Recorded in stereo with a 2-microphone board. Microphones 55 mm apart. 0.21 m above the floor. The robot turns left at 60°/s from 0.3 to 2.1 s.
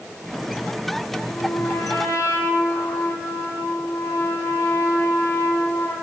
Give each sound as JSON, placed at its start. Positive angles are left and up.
{"t": 1.3, "sound": "a trumpet", "azimuth_deg": 150, "distance_m": 7.5}